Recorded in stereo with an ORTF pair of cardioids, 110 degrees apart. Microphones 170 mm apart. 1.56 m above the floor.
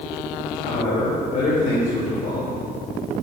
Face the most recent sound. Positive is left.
turn(degrees=35)